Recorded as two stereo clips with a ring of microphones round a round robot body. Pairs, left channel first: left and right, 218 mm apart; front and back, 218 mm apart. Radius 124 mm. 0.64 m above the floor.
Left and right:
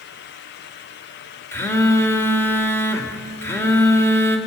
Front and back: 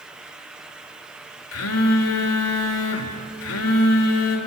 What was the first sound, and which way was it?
A phone buzzing, 10° left.